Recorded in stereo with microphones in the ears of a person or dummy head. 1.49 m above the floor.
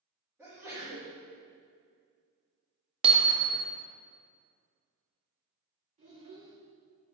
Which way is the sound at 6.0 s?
40° right (ahead or behind).